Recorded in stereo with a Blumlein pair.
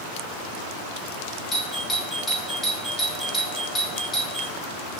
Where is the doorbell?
10° left, 2.5 m.